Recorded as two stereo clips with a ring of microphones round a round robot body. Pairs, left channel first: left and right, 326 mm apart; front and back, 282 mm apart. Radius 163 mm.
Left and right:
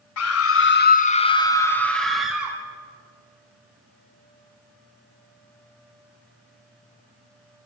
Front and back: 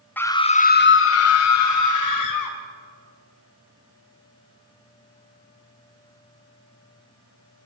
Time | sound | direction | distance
0.2 | a scream | 80° left | 1.6 m